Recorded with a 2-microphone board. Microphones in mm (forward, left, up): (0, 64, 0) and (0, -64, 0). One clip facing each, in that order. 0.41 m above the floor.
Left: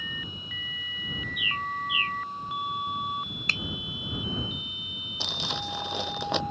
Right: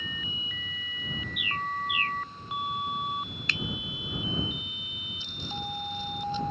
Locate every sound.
1.4 s a bird: 55° right (ahead or behind)
3.5 s a finger snap: 45° left (ahead or behind)
5.2 s crumpling: 85° left